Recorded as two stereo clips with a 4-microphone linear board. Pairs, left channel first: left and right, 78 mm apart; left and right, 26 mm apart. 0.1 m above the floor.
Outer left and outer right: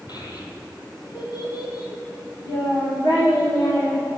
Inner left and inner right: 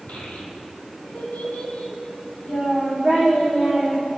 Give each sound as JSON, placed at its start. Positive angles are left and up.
{"t": 0.1, "sound": "a child speaking", "side_deg": 65, "distance_m": 2.0}